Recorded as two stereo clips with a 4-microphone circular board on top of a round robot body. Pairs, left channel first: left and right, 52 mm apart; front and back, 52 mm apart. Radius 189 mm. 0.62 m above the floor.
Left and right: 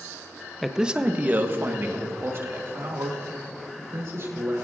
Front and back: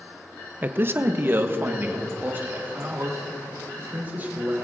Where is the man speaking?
175° left, 0.9 m; by 4.6 s 125° right, 4.5 m.